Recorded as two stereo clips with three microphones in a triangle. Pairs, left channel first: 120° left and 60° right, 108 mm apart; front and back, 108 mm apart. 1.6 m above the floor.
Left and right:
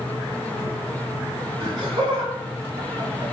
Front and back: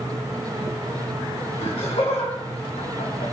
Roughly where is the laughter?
Ahead.